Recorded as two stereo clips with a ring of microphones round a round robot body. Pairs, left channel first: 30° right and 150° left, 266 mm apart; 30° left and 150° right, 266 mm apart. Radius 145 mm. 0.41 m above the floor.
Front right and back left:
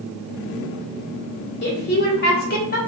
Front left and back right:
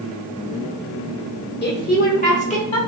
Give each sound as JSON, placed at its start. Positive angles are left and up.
{"t": 1.6, "sound": "a woman speaking", "azimuth_deg": 0, "distance_m": 1.9}